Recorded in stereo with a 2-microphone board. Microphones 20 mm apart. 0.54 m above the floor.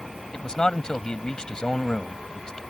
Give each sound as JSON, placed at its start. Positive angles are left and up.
{"t": 0.3, "sound": "a man speaking", "side_deg": 40}